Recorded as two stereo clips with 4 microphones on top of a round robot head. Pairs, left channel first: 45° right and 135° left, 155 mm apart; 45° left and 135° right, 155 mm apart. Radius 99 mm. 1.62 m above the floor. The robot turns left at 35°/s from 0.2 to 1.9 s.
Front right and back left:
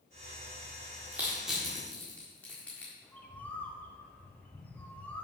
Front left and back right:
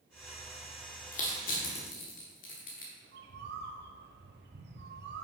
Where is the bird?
125° right, 0.9 m.